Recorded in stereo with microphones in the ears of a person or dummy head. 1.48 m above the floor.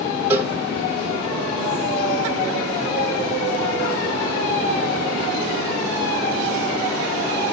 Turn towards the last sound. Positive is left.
turn(degrees=-5)  # may be behind; listen again after turning